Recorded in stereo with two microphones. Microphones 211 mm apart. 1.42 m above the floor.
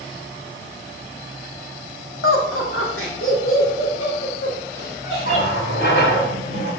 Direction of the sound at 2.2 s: 80° left.